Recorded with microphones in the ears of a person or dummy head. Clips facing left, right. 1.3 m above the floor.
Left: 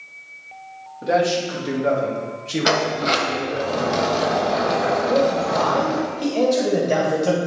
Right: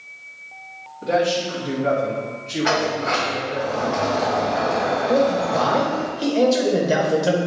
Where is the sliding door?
45° left (ahead or behind), 0.8 m.